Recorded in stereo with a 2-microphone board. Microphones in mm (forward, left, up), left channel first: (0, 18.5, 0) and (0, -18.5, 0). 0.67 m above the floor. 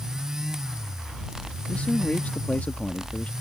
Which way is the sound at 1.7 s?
45° left (ahead or behind).